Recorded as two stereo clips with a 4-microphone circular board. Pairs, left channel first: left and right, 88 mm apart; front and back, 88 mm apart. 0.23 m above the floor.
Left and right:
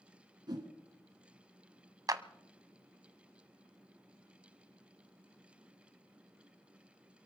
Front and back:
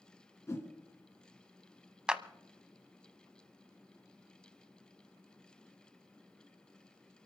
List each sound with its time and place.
0.5 s a whoosh: 55° right, 2.5 m
2.1 s a clap: 105° right, 1.0 m